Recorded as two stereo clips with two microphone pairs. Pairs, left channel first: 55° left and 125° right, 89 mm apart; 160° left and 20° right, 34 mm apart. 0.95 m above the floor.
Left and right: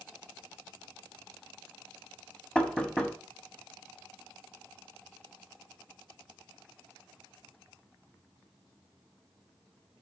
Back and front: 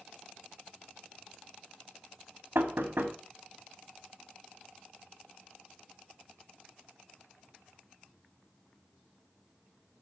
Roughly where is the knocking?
Ahead.